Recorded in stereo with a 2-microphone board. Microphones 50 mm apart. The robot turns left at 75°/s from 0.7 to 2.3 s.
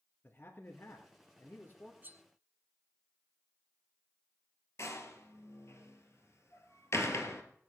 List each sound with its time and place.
0.2 s a man speaking: 135° left, 2.5 m; by 1.9 s 40° left, 2.5 m
2.0 s cutlery clinking: 35° right (ahead or behind), 0.9 m; by 2.2 s 45° right (ahead or behind), 0.9 m
4.8 s a door slam: 65° left (ahead or behind), 2 m